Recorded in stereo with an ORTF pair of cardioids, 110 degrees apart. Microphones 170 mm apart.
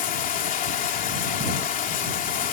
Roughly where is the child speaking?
No child speaking in this recording.